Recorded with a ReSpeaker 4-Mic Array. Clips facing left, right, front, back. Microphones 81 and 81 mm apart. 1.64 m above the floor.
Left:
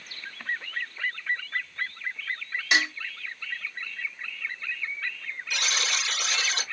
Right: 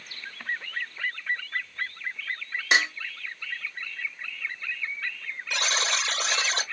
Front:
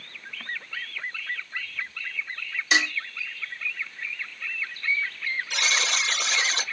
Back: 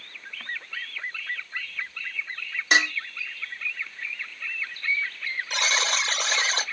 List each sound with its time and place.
2.7 s dishes clattering: 145° right, 1.2 m
5.5 s a buzzer: 140° right, 1.1 m